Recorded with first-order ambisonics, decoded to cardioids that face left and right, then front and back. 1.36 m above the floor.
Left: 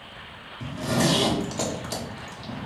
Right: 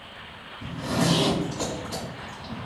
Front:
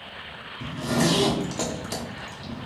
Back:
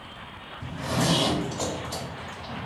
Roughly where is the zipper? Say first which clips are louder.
Left 2 dB, front 2 dB; ahead left.